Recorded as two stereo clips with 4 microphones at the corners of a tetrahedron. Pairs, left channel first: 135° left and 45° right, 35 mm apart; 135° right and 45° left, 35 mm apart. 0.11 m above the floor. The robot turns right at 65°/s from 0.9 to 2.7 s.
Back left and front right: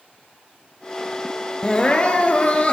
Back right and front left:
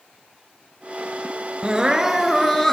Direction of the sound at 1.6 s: 90° left.